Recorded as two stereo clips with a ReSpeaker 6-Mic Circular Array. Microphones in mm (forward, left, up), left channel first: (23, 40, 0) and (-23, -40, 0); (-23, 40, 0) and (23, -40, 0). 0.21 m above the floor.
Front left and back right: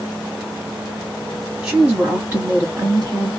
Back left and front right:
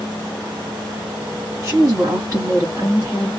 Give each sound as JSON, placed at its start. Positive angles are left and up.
{"t": 1.6, "sound": "a woman speaking", "azimuth_deg": -55, "distance_m": 1.8}